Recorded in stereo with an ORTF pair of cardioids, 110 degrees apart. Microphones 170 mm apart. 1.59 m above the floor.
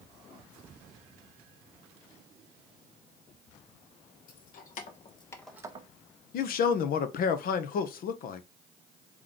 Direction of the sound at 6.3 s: 60° left.